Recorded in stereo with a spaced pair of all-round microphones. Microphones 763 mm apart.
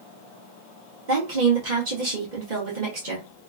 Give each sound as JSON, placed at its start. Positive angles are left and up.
{"t": 1.1, "sound": "a woman speaking", "side_deg": -70, "distance_m": 1.4}